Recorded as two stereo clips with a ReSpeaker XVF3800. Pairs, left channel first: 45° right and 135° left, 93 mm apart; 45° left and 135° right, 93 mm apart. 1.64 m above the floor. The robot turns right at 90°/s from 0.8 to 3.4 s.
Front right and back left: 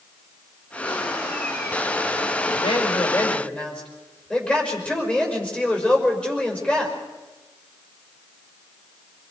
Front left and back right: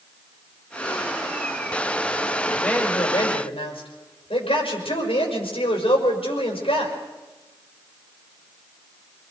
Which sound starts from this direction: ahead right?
A man speaking, at 2.6 s.